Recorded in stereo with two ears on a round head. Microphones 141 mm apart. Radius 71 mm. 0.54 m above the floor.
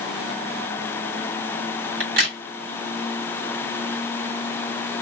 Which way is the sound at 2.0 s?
60° right (ahead or behind).